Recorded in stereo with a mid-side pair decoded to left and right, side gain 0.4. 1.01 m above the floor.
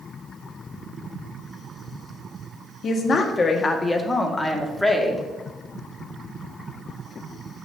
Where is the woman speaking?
60° left, 1.8 m; by 5.2 s 5° left, 2.5 m.